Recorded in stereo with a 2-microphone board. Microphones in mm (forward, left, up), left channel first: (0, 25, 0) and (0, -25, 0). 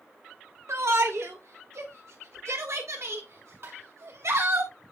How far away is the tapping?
About 5.5 m.